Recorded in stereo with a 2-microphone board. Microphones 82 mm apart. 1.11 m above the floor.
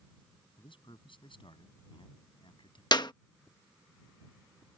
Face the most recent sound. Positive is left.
turn(degrees=60)  # may be behind; listen again after turning